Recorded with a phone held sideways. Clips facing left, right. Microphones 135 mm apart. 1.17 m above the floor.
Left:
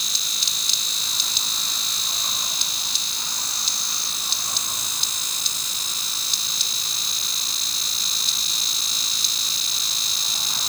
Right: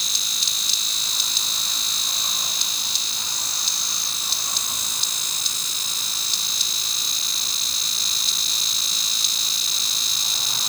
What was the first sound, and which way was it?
Only background noise.